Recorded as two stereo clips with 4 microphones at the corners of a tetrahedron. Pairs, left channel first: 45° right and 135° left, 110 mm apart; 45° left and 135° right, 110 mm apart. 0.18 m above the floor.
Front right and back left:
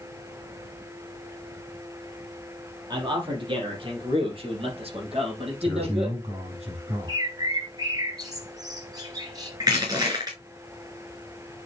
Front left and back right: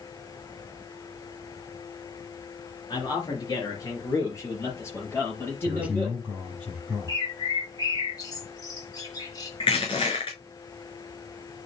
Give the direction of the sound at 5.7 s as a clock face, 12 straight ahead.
7 o'clock.